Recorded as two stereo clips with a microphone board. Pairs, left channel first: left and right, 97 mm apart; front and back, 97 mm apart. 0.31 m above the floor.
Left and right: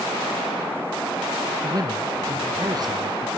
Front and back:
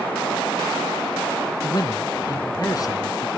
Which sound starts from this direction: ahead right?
A man speaking, at 1.6 s.